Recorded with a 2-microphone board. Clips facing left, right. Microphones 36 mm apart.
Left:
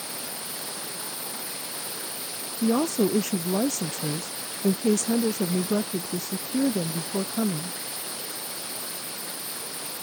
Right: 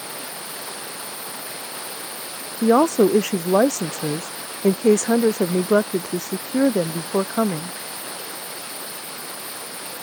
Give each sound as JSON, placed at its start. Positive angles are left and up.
{"t": 0.0, "sound": "running water", "side_deg": -30}
{"t": 2.6, "sound": "a woman speaking", "side_deg": -65}